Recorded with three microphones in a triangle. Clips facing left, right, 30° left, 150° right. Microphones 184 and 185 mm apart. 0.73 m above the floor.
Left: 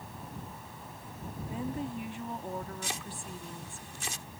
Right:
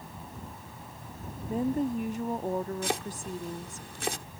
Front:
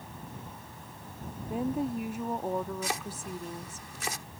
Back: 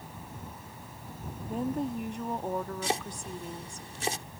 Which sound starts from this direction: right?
Chopping, at 2.8 s.